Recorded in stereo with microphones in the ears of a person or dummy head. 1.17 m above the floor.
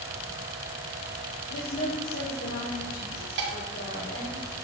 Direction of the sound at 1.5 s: 50° left (ahead or behind).